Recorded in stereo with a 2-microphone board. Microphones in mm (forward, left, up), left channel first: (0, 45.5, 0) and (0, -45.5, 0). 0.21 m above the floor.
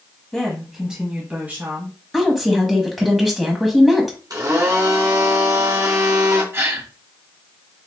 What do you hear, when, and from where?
0.3 s a woman speaking: 5° left (ahead or behind), 1.0 m; by 2.0 s 25° right (ahead or behind), 1.5 m
2.1 s a woman speaking: centre (ahead or behind), 1.2 m
4.3 s a blender: 50° right (ahead or behind), 2 m
6.5 s a gasp: 30° right (ahead or behind), 1.2 m